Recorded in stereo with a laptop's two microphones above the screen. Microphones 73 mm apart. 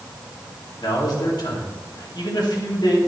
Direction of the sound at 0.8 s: 75° left (ahead or behind).